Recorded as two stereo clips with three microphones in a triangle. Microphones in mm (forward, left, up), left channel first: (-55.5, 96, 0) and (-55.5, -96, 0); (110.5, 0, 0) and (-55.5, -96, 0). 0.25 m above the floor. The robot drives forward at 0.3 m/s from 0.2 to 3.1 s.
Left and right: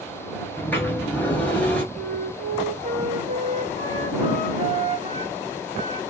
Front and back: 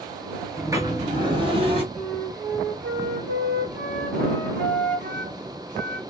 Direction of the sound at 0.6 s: 155° left.